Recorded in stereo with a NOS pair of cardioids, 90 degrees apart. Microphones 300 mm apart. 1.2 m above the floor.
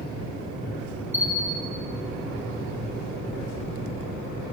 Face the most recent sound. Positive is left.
turn(degrees=-5)